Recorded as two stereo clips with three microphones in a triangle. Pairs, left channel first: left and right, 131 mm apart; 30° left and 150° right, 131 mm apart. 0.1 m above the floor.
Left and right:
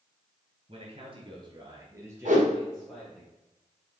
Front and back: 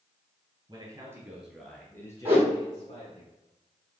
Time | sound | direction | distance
0.7 | a man speaking | 105° right | 2.5 m
2.2 | a whoosh | 75° right | 3.5 m